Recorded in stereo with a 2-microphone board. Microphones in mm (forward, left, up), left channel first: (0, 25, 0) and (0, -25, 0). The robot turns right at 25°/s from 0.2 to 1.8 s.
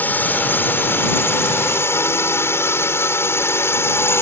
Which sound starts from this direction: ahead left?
A drone, at 0.0 s.